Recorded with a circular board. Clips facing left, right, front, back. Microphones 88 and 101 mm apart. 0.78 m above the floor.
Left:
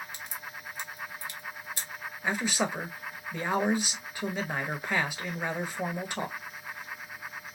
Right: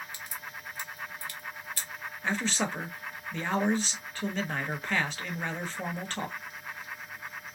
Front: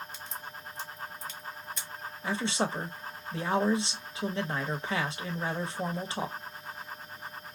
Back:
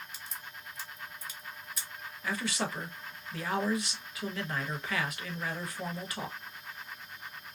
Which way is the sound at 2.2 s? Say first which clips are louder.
Left 1 dB, front 4 dB; 25° left.